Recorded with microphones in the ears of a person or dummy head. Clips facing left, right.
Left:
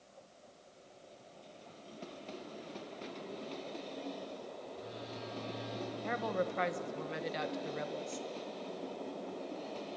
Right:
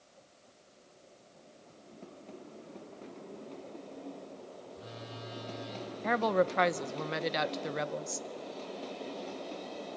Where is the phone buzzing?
40° right (ahead or behind), 7 m.